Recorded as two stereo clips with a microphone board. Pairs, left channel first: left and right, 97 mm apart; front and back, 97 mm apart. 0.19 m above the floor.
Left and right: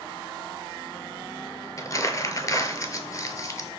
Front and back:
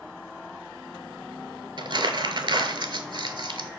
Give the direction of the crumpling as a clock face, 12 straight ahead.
7 o'clock.